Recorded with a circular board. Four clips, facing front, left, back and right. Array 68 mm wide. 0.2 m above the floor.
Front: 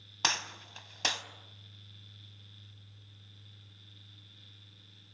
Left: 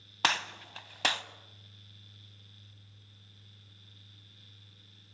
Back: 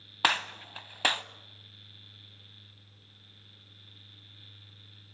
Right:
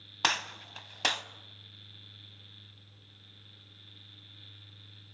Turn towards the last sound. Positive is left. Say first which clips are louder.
# left 1 dB, back 6 dB
turn(degrees=170)